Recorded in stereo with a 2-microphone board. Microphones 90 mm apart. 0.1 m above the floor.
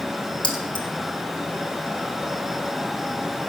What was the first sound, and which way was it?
Keys jangling, 60° left (ahead or behind).